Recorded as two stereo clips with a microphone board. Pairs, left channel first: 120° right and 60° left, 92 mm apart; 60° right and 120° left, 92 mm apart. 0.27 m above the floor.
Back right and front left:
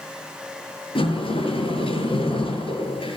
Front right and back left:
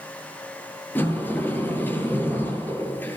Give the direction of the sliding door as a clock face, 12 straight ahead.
4 o'clock.